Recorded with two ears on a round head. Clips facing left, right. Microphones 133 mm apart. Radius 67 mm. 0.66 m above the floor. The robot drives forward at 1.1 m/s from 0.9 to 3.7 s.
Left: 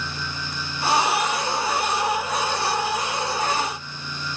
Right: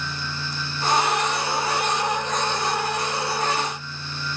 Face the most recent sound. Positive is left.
No sound to turn to.